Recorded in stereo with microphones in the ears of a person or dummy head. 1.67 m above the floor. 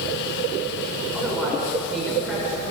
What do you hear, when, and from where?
1.1 s a man speaking: 5° left (ahead or behind), 7 m